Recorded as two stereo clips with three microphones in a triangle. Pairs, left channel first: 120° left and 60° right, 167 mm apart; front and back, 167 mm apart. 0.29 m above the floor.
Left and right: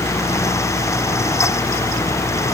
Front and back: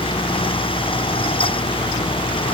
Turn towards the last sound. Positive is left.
No sound to turn to.